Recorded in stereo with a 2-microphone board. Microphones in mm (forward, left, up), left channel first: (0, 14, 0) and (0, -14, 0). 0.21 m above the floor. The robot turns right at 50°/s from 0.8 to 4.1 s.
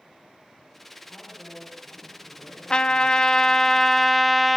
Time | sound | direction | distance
1.1 | a woman speaking | straight ahead | 8 m
2.7 | a trumpet | 105° left | 0.7 m